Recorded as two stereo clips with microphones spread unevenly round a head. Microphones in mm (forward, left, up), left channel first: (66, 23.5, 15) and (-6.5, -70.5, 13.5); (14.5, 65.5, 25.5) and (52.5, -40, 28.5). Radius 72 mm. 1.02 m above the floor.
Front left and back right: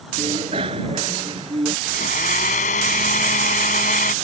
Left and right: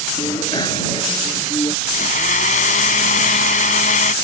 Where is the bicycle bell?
175° left; by 1.8 s 170° left.